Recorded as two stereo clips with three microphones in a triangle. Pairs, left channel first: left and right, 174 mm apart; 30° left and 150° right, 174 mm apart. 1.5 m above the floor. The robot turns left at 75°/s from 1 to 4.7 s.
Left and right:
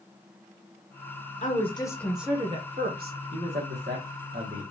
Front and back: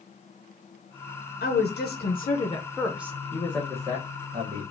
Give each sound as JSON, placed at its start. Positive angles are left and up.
{"t": 1.4, "sound": "a woman speaking", "azimuth_deg": 55, "distance_m": 0.8}
{"t": 3.3, "sound": "a man speaking", "azimuth_deg": -35, "distance_m": 1.2}